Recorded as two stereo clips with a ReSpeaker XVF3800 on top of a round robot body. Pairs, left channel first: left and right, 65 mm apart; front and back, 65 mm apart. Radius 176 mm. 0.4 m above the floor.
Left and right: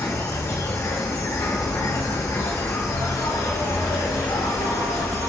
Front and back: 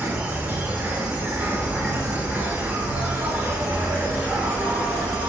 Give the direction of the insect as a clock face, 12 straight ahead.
8 o'clock.